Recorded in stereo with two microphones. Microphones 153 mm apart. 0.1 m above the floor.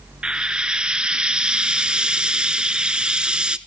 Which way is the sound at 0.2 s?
5° right (ahead or behind).